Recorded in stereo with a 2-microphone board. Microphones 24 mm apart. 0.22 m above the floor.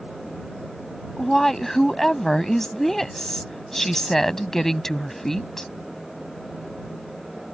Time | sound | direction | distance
1.2 | a woman speaking | 15° left (ahead or behind) | ?